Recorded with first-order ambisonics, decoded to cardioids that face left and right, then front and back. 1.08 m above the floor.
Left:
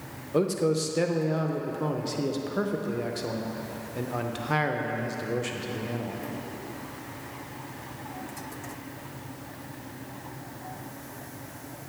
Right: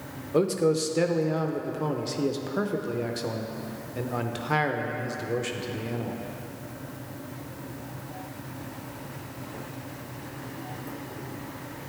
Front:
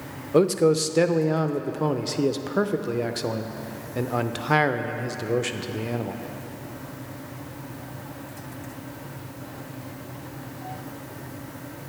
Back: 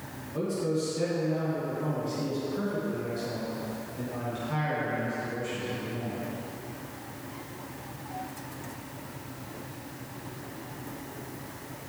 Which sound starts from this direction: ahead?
A man speaking, at 0.3 s.